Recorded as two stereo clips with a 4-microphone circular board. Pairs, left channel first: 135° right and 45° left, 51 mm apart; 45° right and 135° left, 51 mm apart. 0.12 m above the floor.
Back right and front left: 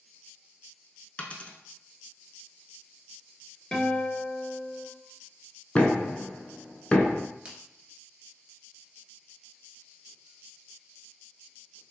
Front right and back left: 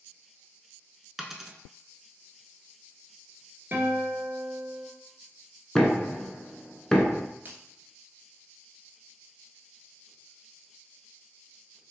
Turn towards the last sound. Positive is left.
turn(degrees=105)